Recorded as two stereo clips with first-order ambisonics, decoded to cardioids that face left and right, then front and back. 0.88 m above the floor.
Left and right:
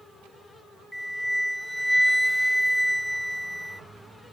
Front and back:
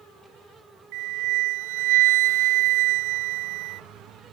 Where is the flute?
Straight behind.